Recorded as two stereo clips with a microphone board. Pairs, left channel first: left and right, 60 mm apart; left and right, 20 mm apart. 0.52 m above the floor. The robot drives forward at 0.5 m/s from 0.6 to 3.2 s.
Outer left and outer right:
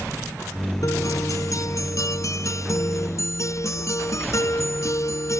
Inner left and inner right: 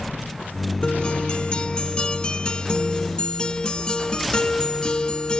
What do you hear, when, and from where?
0.8 s a guitar: 65° left (ahead or behind); by 5.4 s 55° left (ahead or behind)